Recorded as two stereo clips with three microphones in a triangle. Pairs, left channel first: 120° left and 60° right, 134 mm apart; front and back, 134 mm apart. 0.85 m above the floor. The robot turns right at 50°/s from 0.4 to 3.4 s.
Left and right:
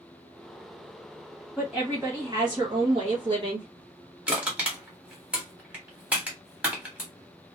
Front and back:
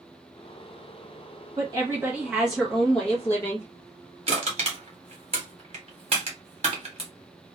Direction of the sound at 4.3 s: 140° right.